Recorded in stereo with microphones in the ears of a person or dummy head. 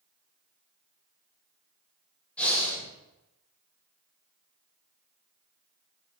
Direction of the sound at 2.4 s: 5° left (ahead or behind).